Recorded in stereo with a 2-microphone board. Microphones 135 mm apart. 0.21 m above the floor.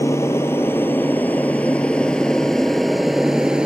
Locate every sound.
0.0 s an aircraft: 20° left (ahead or behind); by 3.7 s 5° right (ahead or behind)